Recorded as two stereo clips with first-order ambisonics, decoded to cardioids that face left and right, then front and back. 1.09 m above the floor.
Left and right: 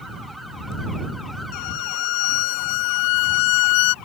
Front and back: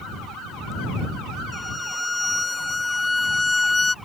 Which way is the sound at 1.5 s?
85° left.